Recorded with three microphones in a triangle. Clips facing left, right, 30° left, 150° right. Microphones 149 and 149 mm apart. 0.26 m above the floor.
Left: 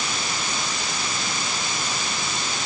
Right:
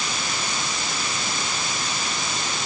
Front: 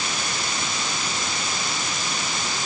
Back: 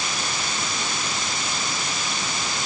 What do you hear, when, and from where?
Only background noise.